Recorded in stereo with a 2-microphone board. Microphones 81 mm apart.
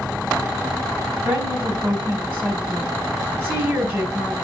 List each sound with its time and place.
1.2 s a woman speaking: 25° right (ahead or behind), 4.5 m